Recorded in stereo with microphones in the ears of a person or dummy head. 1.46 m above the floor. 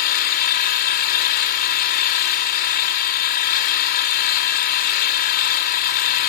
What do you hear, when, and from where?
0.0 s an engine running: 50° left (ahead or behind), 2 m